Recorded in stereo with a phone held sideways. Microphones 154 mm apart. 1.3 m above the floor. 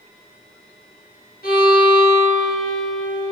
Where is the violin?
80° left, 3.5 m.